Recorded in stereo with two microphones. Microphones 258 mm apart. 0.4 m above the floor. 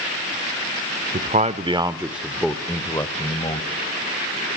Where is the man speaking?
35° right (ahead or behind), 0.9 m; by 3.7 s 25° left (ahead or behind), 1.5 m.